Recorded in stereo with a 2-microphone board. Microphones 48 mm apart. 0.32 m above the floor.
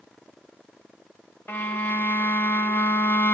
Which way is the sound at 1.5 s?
45° left (ahead or behind).